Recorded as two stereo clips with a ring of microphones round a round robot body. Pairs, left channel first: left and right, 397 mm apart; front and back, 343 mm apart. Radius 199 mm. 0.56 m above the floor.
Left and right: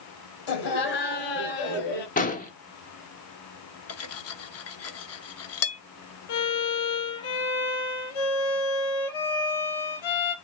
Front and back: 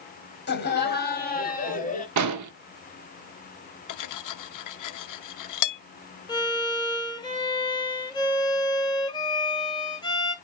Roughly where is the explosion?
Behind left.